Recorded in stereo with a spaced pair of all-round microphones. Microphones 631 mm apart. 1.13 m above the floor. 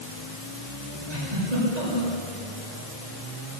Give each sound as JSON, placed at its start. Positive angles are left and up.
{"t": 1.1, "sound": "a giggle", "side_deg": -80, "distance_m": 8.0}